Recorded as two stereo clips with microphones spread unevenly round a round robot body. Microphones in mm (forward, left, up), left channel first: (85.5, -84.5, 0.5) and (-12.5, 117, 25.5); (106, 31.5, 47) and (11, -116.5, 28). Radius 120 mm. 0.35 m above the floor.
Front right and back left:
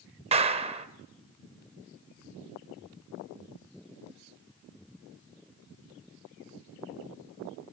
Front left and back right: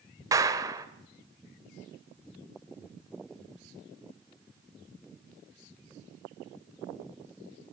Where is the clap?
Straight behind, 1.2 m.